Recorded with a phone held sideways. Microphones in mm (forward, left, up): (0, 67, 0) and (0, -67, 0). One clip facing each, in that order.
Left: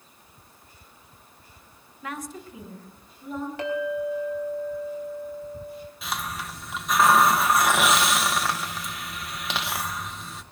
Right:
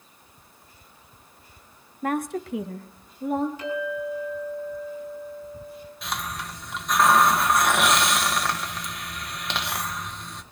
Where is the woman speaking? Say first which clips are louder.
Right 9 dB; 45° right (ahead or behind), 0.9 m; by 3.5 s 65° right (ahead or behind), 2 m.